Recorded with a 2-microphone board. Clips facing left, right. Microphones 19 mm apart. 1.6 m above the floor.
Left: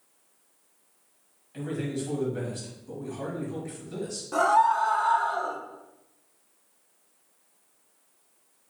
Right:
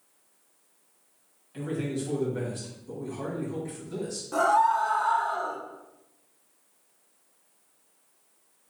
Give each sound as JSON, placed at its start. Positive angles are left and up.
{"t": 1.5, "sound": "a man speaking", "side_deg": 0, "distance_m": 2.0}
{"t": 4.3, "sound": "a scream", "side_deg": 15, "distance_m": 0.7}